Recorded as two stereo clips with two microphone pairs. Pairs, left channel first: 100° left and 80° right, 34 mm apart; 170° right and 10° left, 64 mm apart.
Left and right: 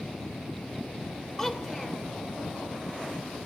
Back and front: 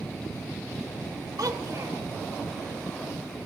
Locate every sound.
1.4 s a child speaking: 20° left, 2.5 m